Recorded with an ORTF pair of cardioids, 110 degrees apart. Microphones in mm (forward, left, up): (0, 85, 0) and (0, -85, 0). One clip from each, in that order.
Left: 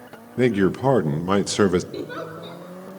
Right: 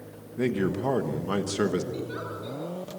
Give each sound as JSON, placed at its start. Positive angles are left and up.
{"t": 0.4, "sound": "a man speaking", "azimuth_deg": 45, "distance_m": 1.1}
{"t": 1.9, "sound": "a giggle", "azimuth_deg": 35, "distance_m": 4.5}